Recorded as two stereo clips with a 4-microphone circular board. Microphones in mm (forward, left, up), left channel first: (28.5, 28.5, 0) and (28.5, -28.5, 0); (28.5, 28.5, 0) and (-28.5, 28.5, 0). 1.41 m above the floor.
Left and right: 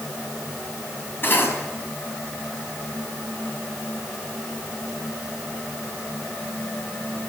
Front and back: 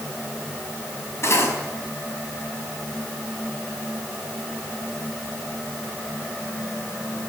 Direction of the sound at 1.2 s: 40° left.